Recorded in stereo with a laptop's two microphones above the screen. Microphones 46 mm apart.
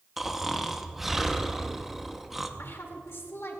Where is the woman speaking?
65° left (ahead or behind), 2 m.